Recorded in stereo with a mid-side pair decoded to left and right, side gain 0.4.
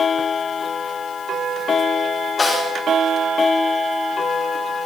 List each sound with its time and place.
2.4 s a snare drum: 40° left, 5 m